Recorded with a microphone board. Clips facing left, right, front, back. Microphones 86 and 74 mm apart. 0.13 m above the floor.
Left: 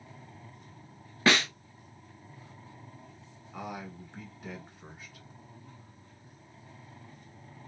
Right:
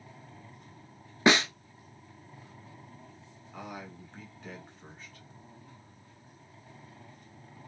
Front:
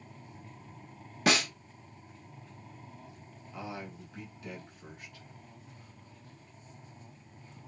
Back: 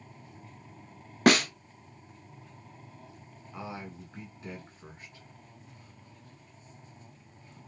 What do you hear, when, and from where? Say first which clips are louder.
1.3 s a snare drum: right 2 dB, back 6 dB; 160° right, 0.6 m
3.5 s a man speaking: left 3 dB, back 1 dB; 160° left, 1.2 m